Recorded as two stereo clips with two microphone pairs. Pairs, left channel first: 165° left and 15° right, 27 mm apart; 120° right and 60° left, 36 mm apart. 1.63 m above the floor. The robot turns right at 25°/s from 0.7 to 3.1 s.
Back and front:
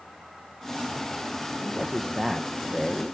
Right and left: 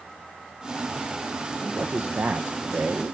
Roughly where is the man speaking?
Ahead left.